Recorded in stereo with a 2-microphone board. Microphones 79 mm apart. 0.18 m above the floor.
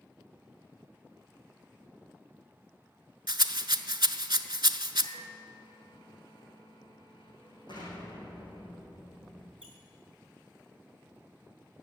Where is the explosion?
65° left (ahead or behind), 4 m.